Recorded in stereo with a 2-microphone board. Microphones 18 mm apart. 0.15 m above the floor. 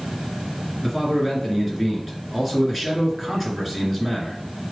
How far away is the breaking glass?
I don't hear breaking glass.